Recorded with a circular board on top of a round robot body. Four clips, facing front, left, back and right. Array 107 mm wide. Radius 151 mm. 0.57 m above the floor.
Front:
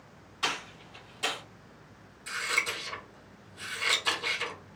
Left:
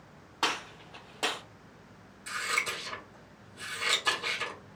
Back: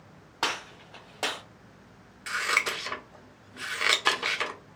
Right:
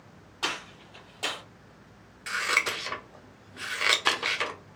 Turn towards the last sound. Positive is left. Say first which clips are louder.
# right 5 dB, back 4 dB
turn(degrees=-135)